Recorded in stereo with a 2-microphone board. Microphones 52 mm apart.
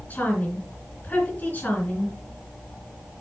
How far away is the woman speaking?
About 3.5 m.